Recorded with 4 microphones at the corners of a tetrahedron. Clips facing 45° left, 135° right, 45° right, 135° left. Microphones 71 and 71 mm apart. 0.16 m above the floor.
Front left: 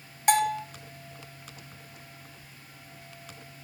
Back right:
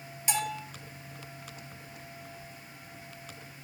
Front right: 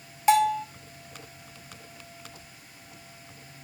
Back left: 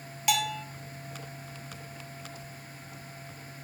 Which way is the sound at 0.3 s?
10° left.